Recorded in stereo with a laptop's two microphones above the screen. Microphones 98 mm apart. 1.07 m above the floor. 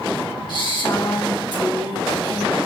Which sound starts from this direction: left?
A woman speaking, at 0.5 s.